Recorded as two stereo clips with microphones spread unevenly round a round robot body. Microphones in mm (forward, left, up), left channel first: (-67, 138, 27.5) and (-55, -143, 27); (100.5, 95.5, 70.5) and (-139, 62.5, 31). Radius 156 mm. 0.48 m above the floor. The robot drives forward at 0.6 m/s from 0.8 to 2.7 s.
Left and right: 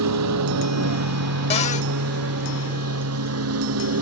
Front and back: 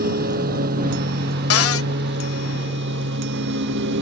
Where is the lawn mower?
110° right; by 4.0 s 120° right.